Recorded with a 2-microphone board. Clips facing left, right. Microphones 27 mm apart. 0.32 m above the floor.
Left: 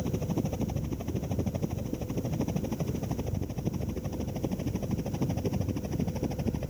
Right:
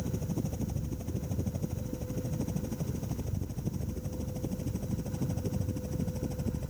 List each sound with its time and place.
0.0 s a helicopter: 35° left (ahead or behind)